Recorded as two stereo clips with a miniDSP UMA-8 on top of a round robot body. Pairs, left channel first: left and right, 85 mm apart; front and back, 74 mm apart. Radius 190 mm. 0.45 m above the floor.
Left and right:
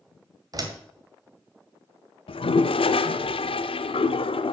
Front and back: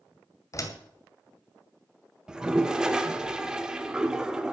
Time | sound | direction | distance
0.5 | a door slam | 45° right | 2 m
2.3 | a toilet flushing | 100° left | 0.7 m